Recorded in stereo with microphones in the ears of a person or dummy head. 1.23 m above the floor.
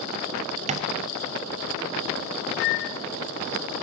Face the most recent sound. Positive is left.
turn(degrees=75)  # may be behind; listen again after turning